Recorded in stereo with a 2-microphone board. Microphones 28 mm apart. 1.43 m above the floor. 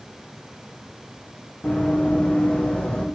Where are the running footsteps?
60° left (ahead or behind), 3.5 m; by 3.0 s 45° left (ahead or behind), 2.5 m.